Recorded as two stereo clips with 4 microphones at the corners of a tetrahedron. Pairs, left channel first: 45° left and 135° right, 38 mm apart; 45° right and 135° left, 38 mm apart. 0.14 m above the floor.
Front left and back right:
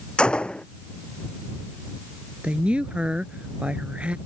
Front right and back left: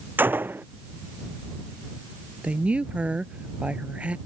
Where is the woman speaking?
Straight behind.